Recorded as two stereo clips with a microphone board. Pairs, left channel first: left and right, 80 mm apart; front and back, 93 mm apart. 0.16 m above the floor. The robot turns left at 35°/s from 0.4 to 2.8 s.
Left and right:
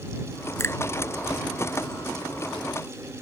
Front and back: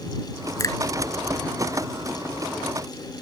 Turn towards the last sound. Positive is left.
turn(degrees=-35)